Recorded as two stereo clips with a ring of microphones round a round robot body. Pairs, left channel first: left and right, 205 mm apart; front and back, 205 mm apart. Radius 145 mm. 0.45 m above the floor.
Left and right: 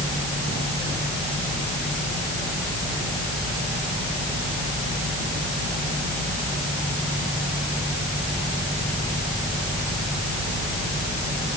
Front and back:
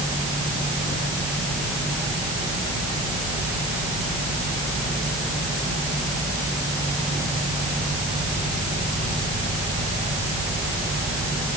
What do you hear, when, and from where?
Only background noise.